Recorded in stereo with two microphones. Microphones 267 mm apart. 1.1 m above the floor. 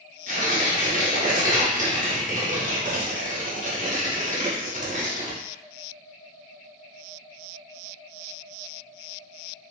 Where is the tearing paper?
30° right (ahead or behind), 0.9 m.